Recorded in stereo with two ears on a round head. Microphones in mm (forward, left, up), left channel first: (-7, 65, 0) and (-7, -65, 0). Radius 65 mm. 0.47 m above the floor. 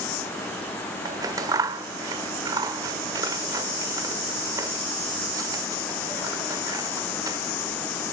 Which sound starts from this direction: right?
Scissors, at 1.1 s.